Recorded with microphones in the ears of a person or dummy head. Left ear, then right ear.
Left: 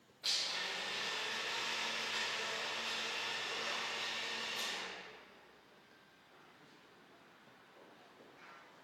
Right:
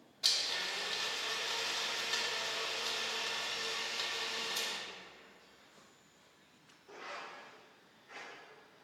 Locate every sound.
0.2 s a blender: 35° right (ahead or behind), 1.3 m